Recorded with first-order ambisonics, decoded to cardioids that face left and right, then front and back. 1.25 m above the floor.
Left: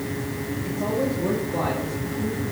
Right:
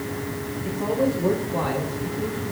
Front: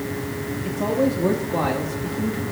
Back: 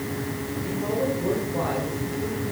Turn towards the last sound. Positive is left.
turn(degrees=5)